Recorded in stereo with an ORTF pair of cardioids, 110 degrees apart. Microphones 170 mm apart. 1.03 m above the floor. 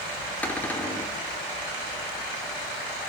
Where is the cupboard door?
10° left, 3.5 m.